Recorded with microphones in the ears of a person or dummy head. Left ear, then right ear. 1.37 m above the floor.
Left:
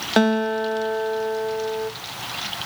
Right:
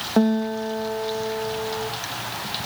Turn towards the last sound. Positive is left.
turn(degrees=35)  # may be behind; listen again after turning